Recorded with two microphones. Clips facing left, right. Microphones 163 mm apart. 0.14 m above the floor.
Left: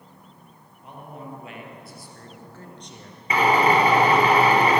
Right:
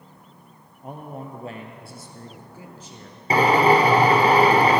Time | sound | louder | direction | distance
0.8 | a man speaking | right 4 dB | 45° right (ahead or behind) | 3 m
3.3 | a drill | right 2 dB | 35° right (ahead or behind) | 2.5 m